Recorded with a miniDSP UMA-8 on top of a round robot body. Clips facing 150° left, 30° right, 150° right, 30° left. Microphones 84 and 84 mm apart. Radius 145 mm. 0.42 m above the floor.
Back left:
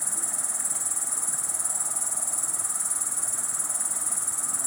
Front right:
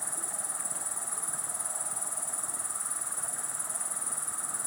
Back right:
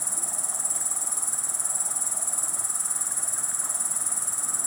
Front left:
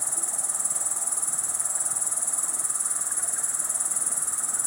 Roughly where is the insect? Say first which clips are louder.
Back left 2 dB, even; behind.